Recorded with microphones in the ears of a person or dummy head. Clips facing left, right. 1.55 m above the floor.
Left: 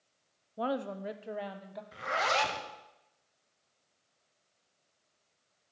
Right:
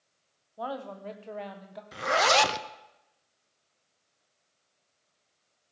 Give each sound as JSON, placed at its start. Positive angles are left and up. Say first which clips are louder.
{"t": 0.6, "sound": "a woman speaking", "louder": "left 3 dB", "side_deg": 35, "distance_m": 0.6}
{"t": 1.9, "sound": "a zipper", "louder": "right 8 dB", "side_deg": -60, "distance_m": 0.7}